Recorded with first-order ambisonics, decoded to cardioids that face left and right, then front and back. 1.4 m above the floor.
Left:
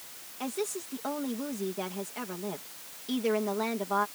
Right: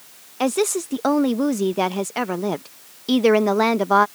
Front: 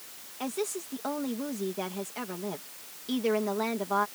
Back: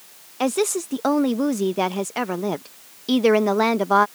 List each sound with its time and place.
0.4 s a woman speaking: 135° right